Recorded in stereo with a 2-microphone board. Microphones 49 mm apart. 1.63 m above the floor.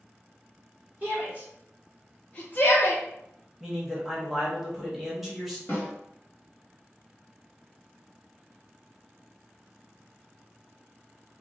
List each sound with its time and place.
1.0 s a shout: 35° right (ahead or behind), 0.9 m; by 3.0 s 60° left (ahead or behind), 0.7 m
3.6 s a man speaking: 5° right (ahead or behind), 1.1 m
5.7 s a snare drum: 30° left (ahead or behind), 1.4 m